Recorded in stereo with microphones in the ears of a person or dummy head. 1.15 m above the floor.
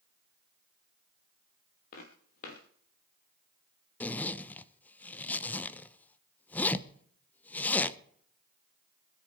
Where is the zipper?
10° left (ahead or behind), 0.7 m.